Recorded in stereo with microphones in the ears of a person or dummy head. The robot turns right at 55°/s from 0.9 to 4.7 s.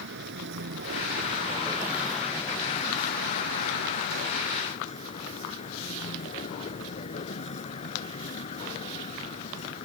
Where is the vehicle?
65° right; by 9.9 s 145° left.